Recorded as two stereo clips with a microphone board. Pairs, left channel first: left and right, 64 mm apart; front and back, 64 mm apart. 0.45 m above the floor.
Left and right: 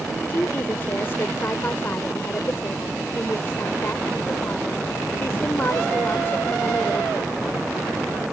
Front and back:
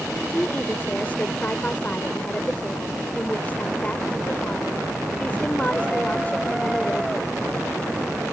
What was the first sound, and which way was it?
A woman speaking, 55° left.